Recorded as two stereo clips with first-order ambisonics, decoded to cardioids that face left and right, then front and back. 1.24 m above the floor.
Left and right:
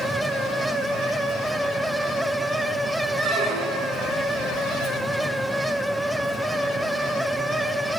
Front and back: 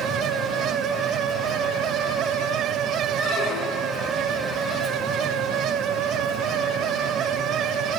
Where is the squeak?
65° right, 8.5 m.